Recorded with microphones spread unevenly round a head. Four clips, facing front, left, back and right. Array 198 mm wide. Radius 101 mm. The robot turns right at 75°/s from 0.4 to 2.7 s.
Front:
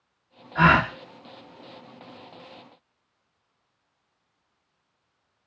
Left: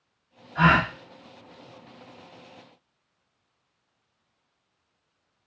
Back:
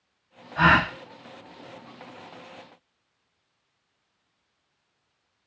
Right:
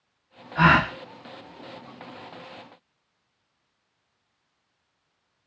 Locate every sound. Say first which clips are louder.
0.6 s a gasp: right 2 dB, front 1 dB; 30° right, 1.2 m; by 0.9 s 5° right, 1.2 m